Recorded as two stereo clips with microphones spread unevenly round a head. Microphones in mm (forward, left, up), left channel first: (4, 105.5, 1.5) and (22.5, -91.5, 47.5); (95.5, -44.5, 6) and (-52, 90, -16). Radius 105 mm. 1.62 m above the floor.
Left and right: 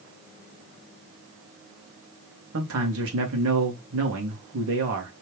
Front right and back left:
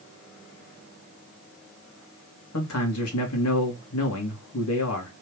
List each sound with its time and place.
2.5 s a man speaking: 65° right, 2.5 m